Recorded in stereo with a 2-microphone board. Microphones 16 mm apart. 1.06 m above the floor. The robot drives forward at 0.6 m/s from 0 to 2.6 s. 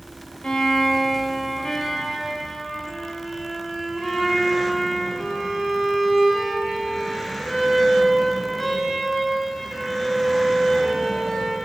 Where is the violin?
55° left (ahead or behind), 0.6 m; by 11.6 s 20° left (ahead or behind), 1.5 m.